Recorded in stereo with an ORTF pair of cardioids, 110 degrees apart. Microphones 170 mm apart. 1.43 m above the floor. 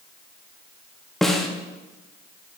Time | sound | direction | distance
1.2 | a snare drum | straight ahead | 0.7 m